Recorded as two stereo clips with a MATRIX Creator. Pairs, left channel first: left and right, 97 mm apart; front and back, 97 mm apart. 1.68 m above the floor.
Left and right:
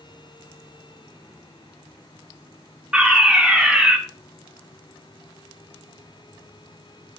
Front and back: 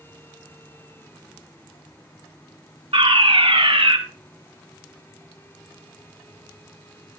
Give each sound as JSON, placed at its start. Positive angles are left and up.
{"t": 2.9, "sound": "a fire alarm", "azimuth_deg": -170, "distance_m": 2.5}